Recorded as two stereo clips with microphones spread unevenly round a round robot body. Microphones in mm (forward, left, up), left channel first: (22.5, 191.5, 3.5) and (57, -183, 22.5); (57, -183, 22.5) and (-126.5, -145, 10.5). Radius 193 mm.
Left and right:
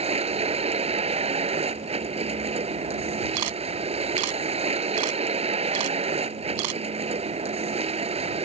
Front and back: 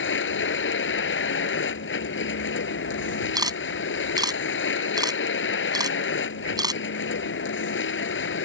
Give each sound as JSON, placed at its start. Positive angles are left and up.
{"t": 0.0, "sound": "a vehicle", "azimuth_deg": -10}
{"t": 3.4, "sound": "a camera shutter", "azimuth_deg": -120}